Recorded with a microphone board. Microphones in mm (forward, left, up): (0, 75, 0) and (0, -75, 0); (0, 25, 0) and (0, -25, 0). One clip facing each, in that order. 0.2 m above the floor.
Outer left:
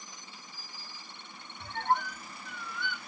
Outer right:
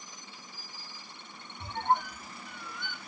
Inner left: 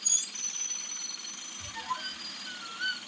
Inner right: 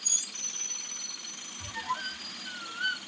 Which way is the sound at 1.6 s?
20° right (ahead or behind).